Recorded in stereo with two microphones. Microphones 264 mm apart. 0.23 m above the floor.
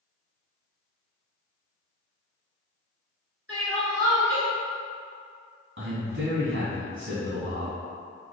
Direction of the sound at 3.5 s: 55° right (ahead or behind).